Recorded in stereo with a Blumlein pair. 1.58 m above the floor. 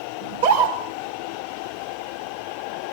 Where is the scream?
65° right, 6 m.